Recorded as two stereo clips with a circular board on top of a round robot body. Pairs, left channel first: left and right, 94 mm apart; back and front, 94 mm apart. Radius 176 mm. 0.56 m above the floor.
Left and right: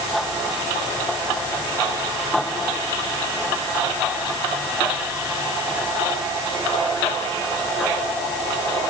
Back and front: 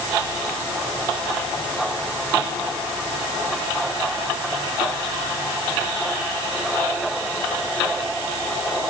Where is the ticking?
No ticking in this recording.